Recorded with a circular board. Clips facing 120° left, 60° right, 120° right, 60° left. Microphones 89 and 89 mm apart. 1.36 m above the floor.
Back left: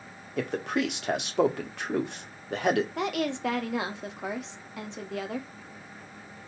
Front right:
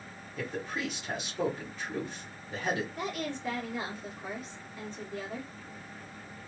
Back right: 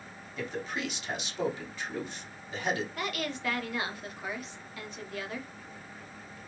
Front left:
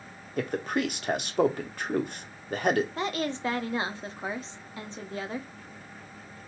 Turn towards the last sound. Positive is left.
turn(degrees=120)